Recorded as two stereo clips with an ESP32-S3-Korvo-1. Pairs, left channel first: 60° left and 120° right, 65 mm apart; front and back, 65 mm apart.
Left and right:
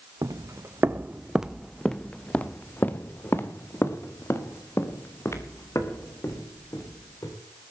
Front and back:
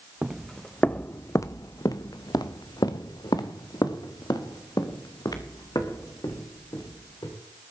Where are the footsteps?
95° right, 0.7 m; by 7.4 s 20° left, 3.5 m.